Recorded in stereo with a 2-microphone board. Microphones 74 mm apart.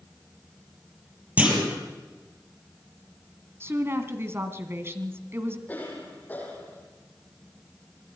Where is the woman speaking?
35° right (ahead or behind), 1.9 m.